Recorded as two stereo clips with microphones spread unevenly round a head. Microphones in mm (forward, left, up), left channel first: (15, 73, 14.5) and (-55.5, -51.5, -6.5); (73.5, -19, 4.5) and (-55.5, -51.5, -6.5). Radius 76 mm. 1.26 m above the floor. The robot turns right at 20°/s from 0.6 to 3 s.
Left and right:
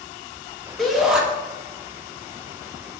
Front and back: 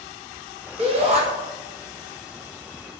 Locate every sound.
0.8 s a shout: 155° left, 1.0 m; by 1.2 s 165° left, 1.0 m